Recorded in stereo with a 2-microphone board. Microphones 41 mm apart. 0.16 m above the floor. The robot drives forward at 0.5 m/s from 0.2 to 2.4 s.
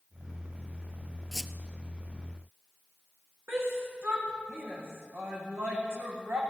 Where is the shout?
70° right (ahead or behind), 6.5 m.